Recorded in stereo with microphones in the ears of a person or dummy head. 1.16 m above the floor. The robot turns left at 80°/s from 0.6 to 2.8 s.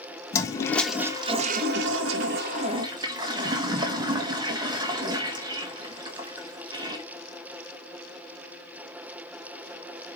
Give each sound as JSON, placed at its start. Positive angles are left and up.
{"t": 0.3, "sound": "a toilet flushing", "azimuth_deg": 20, "distance_m": 1.5}